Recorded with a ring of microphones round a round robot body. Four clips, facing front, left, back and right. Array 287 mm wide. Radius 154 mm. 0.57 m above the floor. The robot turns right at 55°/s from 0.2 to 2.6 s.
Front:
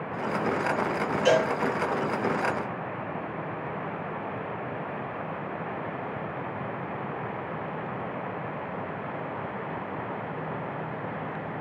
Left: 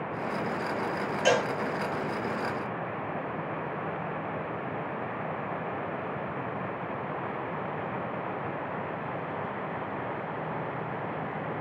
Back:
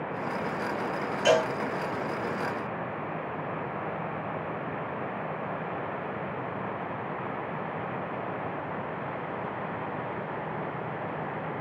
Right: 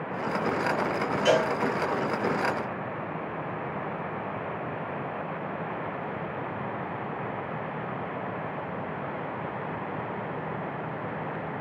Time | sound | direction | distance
1.2 | a cowbell | 110° left | 1.6 m